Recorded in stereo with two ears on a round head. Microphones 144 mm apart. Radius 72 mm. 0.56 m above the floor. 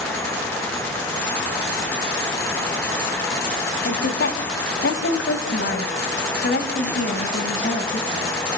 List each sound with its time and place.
3.9 s a woman speaking: 55° left (ahead or behind), 3.5 m; by 8.3 s 40° left (ahead or behind), 4.5 m